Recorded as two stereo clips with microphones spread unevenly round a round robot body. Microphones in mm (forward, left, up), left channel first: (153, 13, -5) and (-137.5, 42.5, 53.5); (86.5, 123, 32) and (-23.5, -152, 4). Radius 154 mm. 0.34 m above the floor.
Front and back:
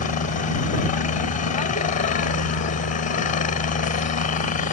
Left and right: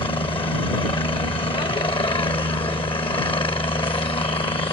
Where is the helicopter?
Straight ahead.